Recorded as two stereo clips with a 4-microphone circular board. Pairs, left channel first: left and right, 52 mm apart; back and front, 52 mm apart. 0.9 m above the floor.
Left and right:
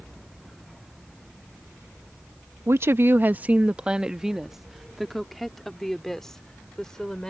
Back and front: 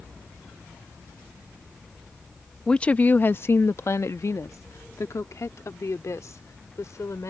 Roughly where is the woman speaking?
Right.